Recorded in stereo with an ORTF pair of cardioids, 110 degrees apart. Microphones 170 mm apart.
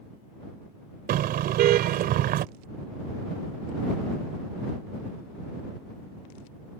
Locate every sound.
1.1 s a car horn: 70° right